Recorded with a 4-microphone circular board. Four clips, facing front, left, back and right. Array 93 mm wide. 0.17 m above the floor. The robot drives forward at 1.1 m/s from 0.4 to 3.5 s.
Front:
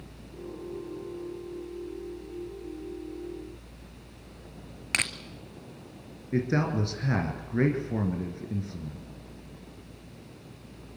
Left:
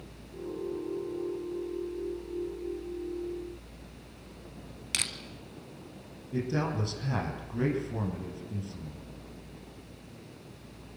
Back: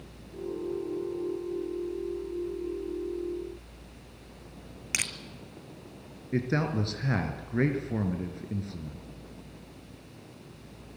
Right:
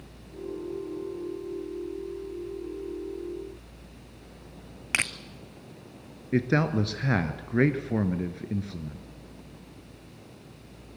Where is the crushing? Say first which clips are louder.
Right 9 dB, front 5 dB; 55° right, 0.9 m.